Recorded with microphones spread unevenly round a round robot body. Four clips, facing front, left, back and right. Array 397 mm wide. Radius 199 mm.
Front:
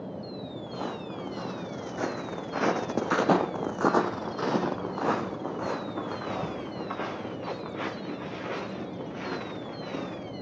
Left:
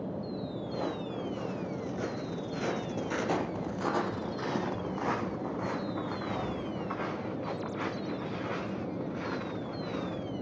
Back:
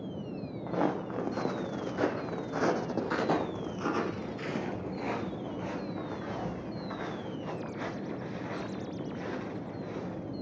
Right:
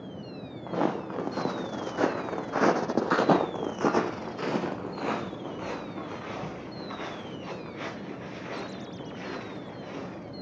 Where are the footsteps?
110° right, 3 m; by 10.3 s 15° left, 7.5 m.